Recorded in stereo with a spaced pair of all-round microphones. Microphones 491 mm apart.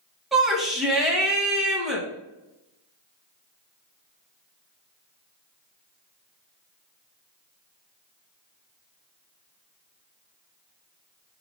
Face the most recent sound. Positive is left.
turn(degrees=0)  # may be behind; listen again after turning